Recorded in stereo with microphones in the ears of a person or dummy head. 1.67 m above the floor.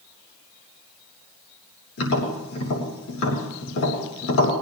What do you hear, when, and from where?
2.0 s tapping: 85° left, 6 m